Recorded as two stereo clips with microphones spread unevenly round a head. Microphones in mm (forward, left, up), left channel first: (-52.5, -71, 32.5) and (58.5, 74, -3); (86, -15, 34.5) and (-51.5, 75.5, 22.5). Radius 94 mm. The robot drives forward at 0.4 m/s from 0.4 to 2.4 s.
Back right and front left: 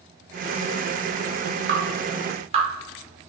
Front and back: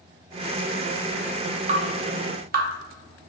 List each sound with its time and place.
1.7 s dripping: 95° left, 0.9 m; by 3.3 s 110° left, 0.9 m